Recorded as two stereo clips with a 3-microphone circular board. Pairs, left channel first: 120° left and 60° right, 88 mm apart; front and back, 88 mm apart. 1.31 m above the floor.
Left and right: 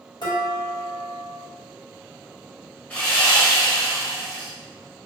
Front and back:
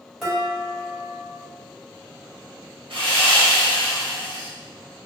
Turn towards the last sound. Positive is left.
turn(degrees=-170)